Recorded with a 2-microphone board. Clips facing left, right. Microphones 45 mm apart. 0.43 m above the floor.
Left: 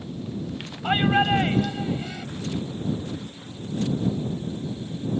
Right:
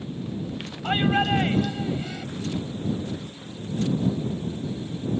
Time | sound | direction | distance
0.8 | a shout | 15° left (ahead or behind) | ?